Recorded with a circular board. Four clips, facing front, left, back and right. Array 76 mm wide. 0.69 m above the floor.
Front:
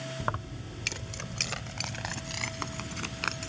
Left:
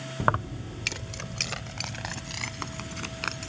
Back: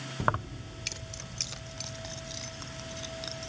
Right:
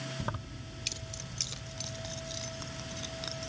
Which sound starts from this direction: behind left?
Keys jangling, at 0.2 s.